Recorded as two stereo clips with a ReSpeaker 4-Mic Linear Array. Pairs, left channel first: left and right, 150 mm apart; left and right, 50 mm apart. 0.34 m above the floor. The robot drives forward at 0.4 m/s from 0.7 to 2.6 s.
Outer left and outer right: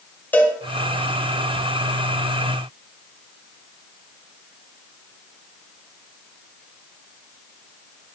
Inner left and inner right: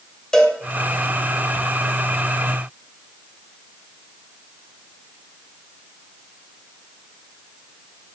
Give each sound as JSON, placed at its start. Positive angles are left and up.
{"t": 0.3, "sound": "a cowbell", "side_deg": 10, "distance_m": 1.6}